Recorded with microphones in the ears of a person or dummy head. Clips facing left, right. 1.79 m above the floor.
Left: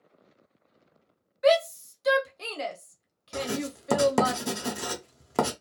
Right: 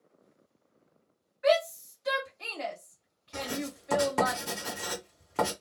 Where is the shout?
50° left (ahead or behind), 0.9 m.